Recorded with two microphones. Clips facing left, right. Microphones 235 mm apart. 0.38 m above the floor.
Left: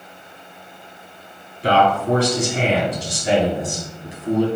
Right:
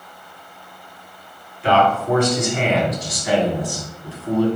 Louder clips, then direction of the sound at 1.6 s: Even; 40° left (ahead or behind).